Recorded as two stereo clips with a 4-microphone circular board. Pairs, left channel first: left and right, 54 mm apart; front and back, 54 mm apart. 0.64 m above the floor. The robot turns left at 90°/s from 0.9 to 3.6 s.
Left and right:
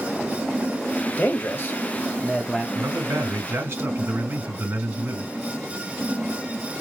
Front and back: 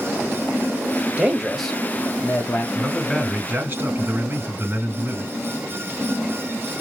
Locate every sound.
1.2 s a man speaking: 125° left, 1.4 m; by 2.6 s 10° right, 1.4 m
2.8 s a man speaking: 60° right, 3 m; by 5.3 s 140° right, 3 m